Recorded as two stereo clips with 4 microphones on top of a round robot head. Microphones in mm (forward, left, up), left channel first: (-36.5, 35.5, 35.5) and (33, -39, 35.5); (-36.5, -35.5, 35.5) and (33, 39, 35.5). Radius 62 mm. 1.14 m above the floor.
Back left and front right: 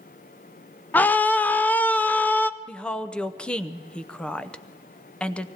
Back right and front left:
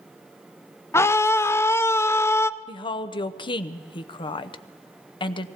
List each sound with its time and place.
0.9 s a scream: 170° right, 0.5 m
2.7 s a woman speaking: 150° right, 0.7 m